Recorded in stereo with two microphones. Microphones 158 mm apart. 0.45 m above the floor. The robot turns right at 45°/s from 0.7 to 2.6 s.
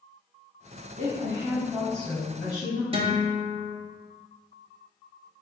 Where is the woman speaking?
50° right, 2.5 m; by 2.8 s 25° left, 2.5 m.